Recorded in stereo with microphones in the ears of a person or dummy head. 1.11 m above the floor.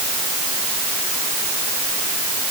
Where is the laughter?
I don't hear laughter.